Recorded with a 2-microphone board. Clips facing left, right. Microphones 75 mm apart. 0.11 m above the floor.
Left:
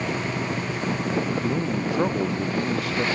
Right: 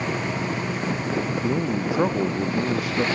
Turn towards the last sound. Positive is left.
turn(degrees=-10)  # may be behind; listen again after turning